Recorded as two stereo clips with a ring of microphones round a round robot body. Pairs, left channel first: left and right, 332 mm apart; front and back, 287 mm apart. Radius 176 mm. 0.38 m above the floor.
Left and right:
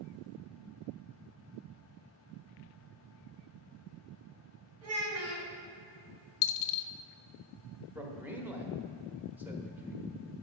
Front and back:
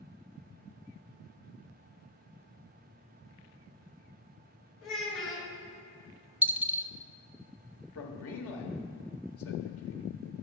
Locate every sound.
4.8 s a child speaking: 45° right, 2.5 m
6.4 s a dropped coin: 95° left, 0.6 m
8.0 s a man speaking: 5° right, 1.3 m